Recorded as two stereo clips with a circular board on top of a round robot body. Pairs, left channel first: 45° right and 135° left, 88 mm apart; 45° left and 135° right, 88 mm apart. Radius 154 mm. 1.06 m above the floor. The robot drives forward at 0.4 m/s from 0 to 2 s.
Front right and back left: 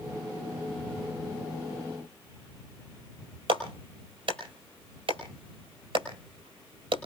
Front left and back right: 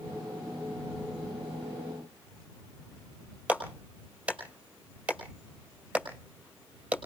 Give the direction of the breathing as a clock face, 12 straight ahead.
I don't hear breathing.